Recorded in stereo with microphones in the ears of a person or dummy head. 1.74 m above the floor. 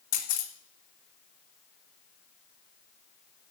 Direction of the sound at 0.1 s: 55° left (ahead or behind).